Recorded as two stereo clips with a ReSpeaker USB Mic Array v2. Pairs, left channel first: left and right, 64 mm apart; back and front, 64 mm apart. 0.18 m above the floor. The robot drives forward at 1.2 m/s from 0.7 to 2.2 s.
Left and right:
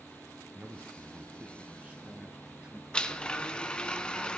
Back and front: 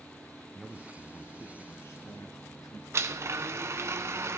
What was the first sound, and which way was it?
A man speaking, 90° right.